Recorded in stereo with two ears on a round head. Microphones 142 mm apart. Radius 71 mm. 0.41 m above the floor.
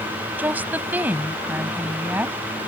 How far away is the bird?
No bird in this recording.